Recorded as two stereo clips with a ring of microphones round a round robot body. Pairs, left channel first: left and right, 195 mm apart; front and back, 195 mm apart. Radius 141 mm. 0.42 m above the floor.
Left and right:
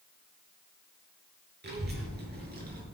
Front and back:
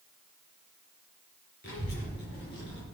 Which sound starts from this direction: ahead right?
A child speaking, at 1.6 s.